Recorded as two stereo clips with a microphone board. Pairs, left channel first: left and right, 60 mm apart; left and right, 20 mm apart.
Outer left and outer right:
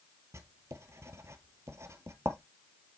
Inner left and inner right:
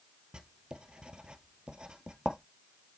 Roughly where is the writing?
Right.